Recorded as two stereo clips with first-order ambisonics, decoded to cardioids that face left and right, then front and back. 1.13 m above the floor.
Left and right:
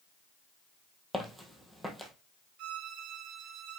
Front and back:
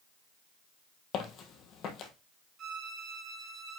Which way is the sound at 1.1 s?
5° right.